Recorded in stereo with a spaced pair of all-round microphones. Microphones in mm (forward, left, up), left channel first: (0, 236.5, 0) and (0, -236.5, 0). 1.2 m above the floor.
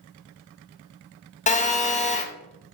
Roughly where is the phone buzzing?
Centre.